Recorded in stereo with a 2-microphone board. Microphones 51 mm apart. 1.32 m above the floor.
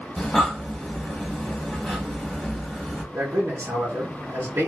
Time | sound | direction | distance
0.2 | breathing | 10° left (ahead or behind) | 1.0 m
3.1 | a man speaking | 70° right (ahead or behind) | 1.0 m